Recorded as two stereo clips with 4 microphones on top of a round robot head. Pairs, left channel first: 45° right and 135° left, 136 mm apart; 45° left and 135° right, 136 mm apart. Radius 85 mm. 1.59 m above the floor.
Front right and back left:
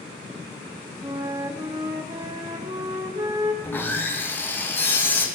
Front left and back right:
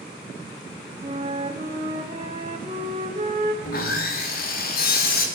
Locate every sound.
1.0 s a flute: 175° right, 1.1 m
3.6 s sawing: 30° left, 2 m